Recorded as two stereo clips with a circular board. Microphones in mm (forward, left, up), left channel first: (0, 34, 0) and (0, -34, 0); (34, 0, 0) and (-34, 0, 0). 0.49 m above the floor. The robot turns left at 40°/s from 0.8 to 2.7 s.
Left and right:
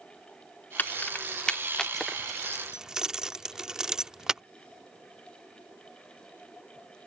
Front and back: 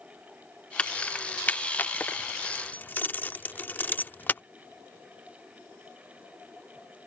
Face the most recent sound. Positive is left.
turn(degrees=-20)